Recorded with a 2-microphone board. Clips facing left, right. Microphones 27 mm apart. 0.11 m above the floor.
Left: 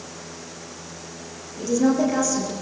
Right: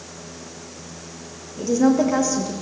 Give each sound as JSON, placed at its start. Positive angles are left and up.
{"t": 1.6, "sound": "a woman speaking", "side_deg": -30, "distance_m": 5.5}